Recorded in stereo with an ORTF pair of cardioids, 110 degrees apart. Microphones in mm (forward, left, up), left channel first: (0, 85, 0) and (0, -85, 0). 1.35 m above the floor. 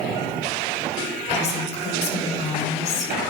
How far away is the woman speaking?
About 3 m.